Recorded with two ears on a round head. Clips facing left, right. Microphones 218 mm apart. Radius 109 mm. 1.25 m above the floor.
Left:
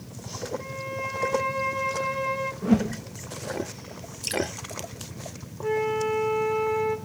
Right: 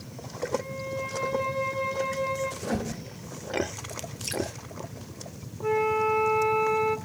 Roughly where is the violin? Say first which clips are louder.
Right 1 dB; left.